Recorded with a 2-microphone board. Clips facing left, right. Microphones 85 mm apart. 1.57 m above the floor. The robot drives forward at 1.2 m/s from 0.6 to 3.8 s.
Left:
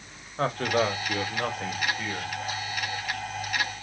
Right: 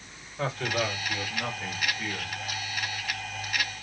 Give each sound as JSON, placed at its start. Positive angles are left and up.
{"t": 0.4, "sound": "a man speaking", "side_deg": 60, "distance_m": 1.4}